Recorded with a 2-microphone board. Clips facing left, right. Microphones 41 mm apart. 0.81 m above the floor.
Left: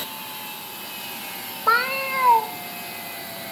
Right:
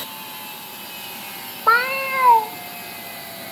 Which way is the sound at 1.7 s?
10° right (ahead or behind).